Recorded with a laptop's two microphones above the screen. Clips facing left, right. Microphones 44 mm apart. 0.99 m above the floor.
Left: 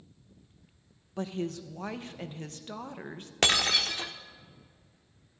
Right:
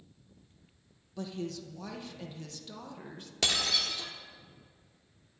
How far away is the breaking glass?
About 0.8 m.